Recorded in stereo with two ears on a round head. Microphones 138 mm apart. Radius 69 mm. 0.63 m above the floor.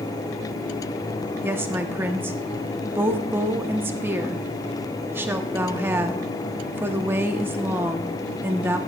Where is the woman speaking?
15° right (ahead or behind), 0.9 m.